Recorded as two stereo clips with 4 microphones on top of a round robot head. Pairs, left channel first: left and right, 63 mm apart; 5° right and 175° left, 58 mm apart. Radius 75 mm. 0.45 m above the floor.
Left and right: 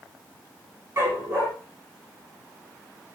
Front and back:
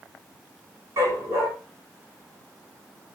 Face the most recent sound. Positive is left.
turn(degrees=-140)